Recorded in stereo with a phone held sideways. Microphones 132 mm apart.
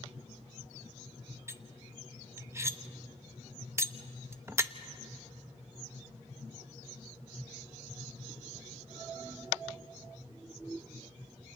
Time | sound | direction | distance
1.5 | cutlery clinking | 20° right (ahead or behind) | 0.5 m